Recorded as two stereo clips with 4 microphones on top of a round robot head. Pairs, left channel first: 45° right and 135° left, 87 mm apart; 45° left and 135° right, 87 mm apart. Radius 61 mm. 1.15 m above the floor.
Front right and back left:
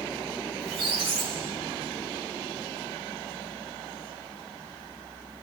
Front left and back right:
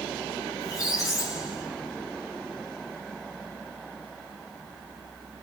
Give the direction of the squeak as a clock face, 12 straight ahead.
9 o'clock.